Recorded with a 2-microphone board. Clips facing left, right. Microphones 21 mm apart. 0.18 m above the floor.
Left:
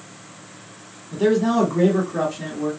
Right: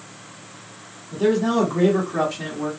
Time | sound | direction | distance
1.1 | a man speaking | 20° left (ahead or behind) | 1.1 m